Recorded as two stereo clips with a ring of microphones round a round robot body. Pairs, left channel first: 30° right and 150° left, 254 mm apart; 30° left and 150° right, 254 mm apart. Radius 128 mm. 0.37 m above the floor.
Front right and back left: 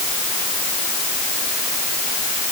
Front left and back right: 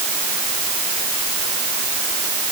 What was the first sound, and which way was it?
Only background noise.